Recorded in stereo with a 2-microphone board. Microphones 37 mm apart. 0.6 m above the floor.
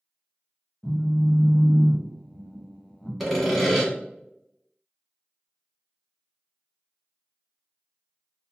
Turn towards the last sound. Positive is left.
turn(degrees=0)  # may be behind; listen again after turning